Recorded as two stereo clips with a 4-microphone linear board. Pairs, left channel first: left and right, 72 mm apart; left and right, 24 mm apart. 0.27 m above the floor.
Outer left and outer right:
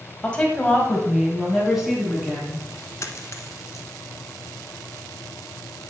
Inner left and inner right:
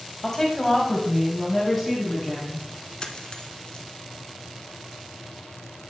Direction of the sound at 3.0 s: 40° left (ahead or behind).